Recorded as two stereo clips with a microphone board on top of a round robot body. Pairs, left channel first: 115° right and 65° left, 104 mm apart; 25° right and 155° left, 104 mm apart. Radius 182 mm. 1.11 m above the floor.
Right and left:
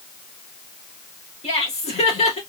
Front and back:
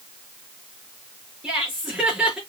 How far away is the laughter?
About 3.5 m.